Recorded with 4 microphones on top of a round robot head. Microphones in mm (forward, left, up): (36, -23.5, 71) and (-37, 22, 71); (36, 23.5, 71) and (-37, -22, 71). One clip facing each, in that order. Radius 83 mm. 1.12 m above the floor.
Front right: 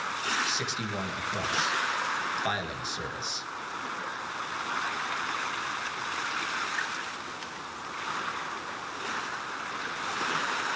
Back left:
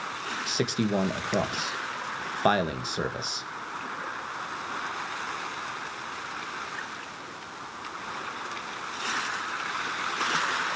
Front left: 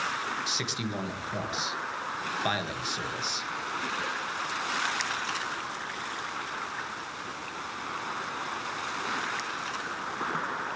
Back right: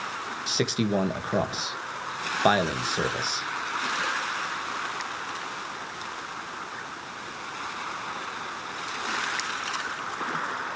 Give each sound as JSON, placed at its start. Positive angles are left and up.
{"t": 0.5, "sound": "a man speaking", "azimuth_deg": 175, "distance_m": 1.7}